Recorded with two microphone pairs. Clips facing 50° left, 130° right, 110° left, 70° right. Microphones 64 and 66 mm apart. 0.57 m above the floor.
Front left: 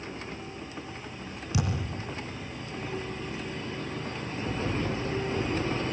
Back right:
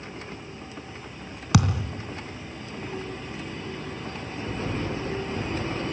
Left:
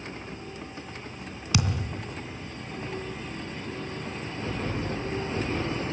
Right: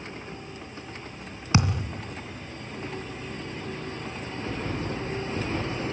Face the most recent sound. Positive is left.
turn(degrees=-130)